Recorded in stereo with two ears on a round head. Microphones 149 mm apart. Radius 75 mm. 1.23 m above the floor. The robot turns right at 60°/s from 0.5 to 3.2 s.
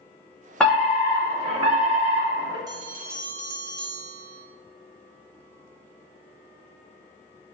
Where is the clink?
No clink in this recording.